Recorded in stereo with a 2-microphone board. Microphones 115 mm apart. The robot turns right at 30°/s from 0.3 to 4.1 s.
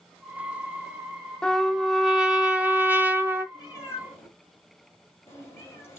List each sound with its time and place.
1.4 s a trumpet: 5° left (ahead or behind), 0.9 m; by 3.4 s 20° right (ahead or behind), 0.9 m
3.5 s a cat meowing: 40° left (ahead or behind), 2.5 m; by 6.0 s 20° left (ahead or behind), 2.5 m